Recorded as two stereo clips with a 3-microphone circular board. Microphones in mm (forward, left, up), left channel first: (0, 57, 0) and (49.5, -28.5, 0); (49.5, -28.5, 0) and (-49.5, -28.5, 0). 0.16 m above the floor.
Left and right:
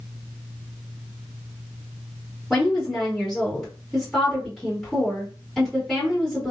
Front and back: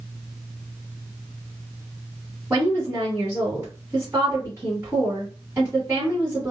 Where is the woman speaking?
165° right, 1.5 m.